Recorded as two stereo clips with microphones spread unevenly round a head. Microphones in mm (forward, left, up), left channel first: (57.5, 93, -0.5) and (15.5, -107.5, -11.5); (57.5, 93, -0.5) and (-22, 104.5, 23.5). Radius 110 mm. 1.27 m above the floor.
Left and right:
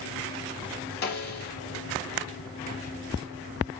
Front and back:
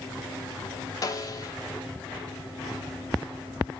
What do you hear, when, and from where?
1.0 s a snare drum: 35° left, 1.2 m